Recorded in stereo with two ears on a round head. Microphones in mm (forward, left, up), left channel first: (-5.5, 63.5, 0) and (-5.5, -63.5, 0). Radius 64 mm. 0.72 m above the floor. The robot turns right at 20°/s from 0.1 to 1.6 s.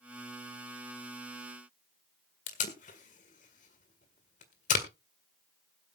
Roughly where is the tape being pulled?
Left.